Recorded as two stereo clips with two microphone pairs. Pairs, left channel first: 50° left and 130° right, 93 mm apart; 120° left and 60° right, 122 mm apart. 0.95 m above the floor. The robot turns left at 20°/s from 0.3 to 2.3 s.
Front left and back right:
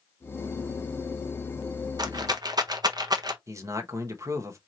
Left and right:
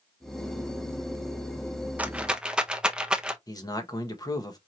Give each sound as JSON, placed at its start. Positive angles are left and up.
{"t": 2.0, "sound": "a rattle", "azimuth_deg": -130, "distance_m": 0.6}
{"t": 3.5, "sound": "a man speaking", "azimuth_deg": 175, "distance_m": 1.0}